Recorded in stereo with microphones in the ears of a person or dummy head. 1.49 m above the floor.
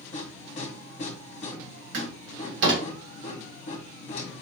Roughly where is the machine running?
Left.